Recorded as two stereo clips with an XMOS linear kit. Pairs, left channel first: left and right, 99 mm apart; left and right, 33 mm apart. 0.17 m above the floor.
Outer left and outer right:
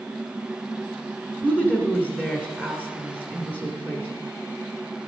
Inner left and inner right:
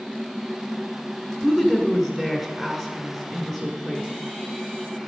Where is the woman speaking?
15° right (ahead or behind), 1.4 m.